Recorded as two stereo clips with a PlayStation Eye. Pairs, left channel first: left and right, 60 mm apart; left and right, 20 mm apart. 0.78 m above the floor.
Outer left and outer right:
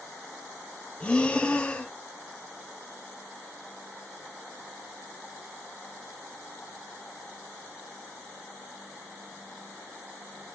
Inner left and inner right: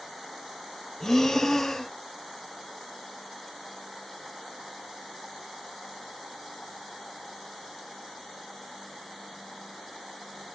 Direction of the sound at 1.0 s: 20° left (ahead or behind).